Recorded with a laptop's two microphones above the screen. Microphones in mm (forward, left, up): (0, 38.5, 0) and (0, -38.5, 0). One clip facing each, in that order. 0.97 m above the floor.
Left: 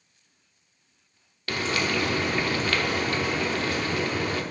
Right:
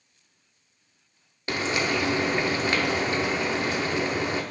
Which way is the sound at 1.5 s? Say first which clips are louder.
Right 1 dB; 20° right (ahead or behind).